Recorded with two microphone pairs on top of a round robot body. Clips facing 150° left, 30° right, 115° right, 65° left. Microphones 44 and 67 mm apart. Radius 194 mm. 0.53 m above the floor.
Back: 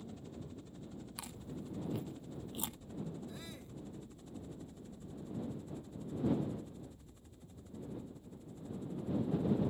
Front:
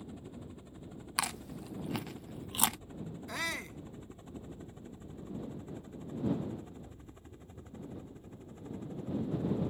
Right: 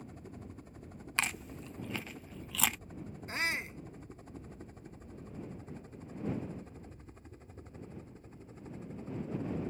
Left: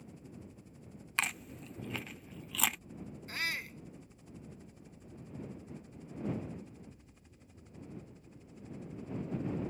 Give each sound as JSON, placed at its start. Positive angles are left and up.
{"t": 0.0, "sound": "a helicopter", "azimuth_deg": -100}
{"t": 1.2, "sound": "chewing", "azimuth_deg": -25}
{"t": 3.3, "sound": "a shout", "azimuth_deg": -50}